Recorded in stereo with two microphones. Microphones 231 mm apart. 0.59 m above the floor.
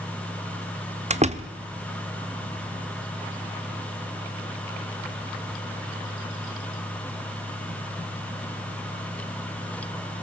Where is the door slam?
30° right (ahead or behind), 0.9 m.